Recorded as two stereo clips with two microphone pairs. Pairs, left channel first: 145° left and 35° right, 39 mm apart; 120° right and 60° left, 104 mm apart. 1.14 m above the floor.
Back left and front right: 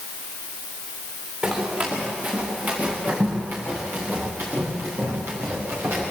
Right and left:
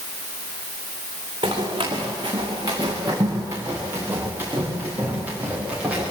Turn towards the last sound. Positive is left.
turn(degrees=-20)